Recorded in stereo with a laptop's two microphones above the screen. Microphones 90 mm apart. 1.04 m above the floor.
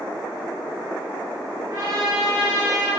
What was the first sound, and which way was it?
A trumpet, 40° right (ahead or behind).